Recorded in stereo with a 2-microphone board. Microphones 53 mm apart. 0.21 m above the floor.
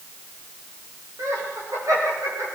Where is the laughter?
80° right, 9.5 m; by 2.6 s 85° right, 8.5 m.